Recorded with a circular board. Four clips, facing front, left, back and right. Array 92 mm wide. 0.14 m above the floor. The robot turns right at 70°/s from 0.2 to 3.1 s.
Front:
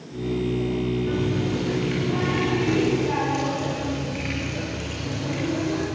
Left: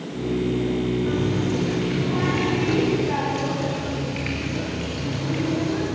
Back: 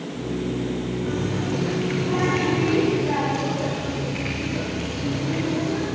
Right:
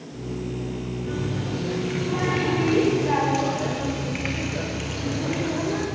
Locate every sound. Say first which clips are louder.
1.1 s a running tap: left 6 dB, front 1 dB; 125° left, 6.5 m; by 5.9 s 90° right, 6.5 m